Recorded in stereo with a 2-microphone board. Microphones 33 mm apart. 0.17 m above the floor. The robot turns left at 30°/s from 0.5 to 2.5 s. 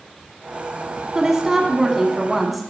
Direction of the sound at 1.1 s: 20° right (ahead or behind).